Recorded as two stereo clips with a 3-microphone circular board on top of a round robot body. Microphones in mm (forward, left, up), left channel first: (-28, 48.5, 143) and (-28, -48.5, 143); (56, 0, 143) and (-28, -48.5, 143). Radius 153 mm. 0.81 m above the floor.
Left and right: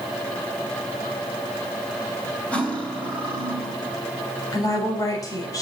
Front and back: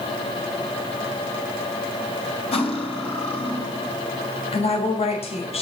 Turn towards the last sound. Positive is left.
turn(degrees=35)